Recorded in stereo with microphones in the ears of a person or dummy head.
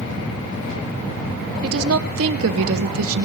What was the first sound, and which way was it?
A woman speaking, 85° right.